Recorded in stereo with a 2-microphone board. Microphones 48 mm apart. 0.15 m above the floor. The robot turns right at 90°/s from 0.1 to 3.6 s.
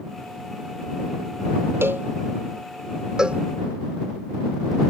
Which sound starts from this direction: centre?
A cowbell, at 3.2 s.